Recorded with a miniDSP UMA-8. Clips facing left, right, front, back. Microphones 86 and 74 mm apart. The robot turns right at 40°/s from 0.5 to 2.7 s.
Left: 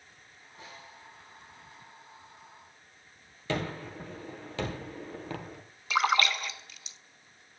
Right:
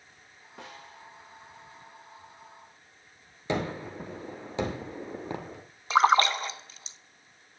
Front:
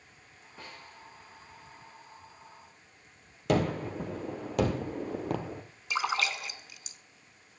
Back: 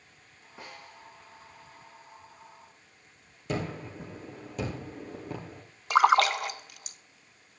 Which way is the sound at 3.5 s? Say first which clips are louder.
Right 3 dB, front 6 dB; 20° right.